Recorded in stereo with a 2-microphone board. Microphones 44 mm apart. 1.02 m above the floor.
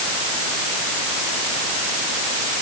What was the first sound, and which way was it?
Only background noise.